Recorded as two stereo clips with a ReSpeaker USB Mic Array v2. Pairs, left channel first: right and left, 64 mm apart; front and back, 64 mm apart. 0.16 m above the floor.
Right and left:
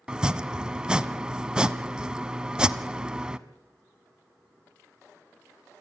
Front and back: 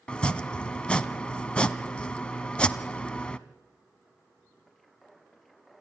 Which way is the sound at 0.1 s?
45° left.